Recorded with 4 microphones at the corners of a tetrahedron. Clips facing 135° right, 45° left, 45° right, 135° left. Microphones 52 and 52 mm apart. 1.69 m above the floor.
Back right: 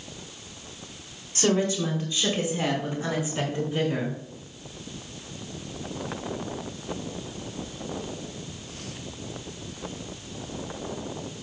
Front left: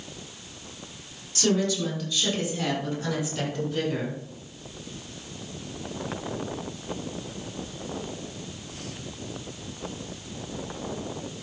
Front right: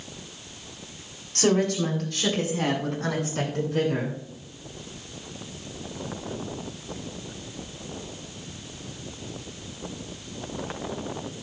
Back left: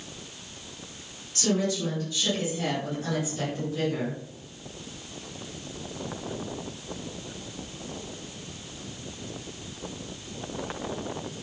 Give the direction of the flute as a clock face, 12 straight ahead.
I don't hear a flute.